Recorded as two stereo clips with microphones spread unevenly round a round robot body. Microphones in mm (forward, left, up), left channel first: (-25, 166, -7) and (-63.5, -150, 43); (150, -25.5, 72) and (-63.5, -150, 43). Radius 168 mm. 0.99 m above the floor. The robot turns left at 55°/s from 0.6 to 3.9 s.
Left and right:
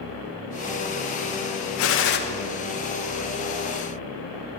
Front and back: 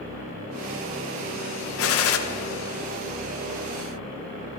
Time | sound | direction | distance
1.8 | a gunshot | 60° left | 0.8 m